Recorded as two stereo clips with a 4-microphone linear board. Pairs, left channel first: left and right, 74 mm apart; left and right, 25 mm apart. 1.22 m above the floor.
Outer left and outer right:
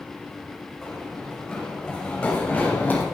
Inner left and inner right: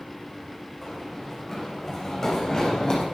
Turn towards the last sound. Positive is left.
turn(degrees=25)  # may be behind; listen again after turning